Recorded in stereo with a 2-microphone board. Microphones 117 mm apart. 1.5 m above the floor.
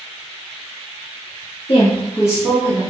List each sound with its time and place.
1.7 s a woman speaking: 55° left (ahead or behind), 0.7 m; by 2.8 s 35° right (ahead or behind), 1.2 m